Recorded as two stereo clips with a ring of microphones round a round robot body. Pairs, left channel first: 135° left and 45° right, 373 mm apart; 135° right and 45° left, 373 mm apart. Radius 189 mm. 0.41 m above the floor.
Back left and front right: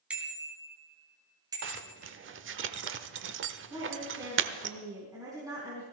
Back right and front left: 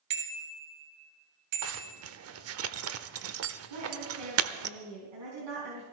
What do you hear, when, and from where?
0.1 s a bicycle bell: 40° left, 2.5 m; by 2.0 s 35° left, 3.5 m
1.6 s a zipper: 5° left, 0.9 m
3.7 s a woman speaking: 35° left, 4.5 m